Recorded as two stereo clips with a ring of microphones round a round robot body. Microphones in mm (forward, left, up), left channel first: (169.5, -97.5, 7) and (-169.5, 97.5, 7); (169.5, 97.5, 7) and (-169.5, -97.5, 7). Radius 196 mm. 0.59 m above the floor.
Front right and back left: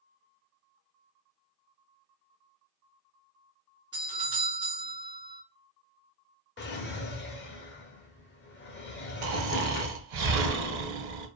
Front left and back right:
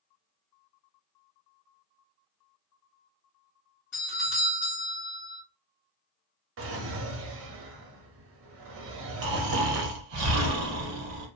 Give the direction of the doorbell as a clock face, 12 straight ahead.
9 o'clock.